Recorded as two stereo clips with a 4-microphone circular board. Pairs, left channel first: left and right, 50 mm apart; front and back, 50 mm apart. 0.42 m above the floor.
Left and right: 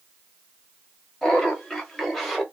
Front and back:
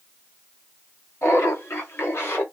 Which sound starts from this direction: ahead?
Laughter, at 1.2 s.